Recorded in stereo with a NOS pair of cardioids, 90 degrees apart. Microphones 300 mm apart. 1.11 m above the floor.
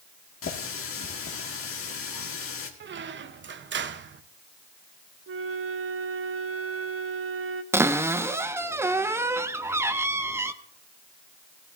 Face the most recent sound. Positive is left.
turn(degrees=-10)